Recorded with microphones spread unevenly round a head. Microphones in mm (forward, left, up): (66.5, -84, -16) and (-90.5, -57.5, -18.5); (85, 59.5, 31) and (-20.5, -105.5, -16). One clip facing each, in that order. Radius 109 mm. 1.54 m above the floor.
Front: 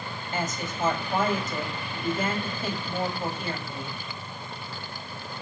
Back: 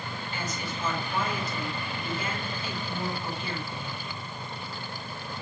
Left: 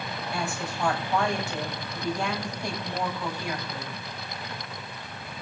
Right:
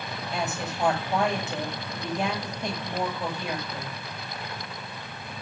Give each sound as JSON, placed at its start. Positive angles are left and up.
{"t": 0.3, "sound": "a woman speaking", "azimuth_deg": -50, "distance_m": 8.0}